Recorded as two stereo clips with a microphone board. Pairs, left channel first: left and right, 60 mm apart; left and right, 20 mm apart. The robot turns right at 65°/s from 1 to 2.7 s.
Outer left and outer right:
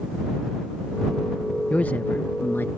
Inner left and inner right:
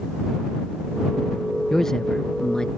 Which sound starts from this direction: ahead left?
A man speaking, at 1.7 s.